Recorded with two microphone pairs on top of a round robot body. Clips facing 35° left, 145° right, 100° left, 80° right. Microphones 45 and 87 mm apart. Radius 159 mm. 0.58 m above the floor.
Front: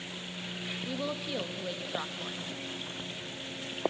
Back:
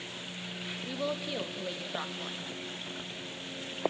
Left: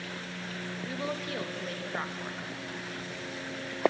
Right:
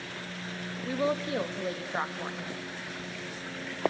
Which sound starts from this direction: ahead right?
A woman speaking, at 0.8 s.